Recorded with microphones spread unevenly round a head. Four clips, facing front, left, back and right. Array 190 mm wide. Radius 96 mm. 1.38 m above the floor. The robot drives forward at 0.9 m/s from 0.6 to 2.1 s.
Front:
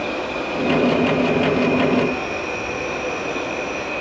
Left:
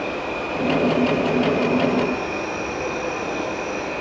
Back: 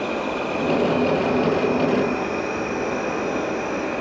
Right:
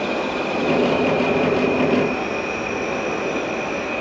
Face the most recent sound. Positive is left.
turn(degrees=-130)